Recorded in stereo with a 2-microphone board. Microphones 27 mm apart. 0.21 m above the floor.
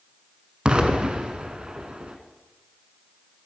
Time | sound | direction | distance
0.7 | an explosion | 35° right (ahead or behind) | 1.1 m